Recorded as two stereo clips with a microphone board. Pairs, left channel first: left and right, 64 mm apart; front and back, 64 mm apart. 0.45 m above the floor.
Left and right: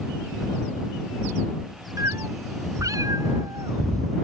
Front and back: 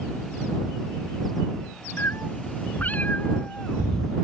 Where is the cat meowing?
55° right; by 4.2 s 85° right.